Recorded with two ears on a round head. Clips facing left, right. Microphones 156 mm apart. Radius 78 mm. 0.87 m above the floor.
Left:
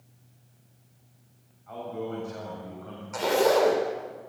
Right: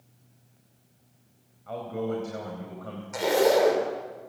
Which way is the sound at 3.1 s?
15° right (ahead or behind).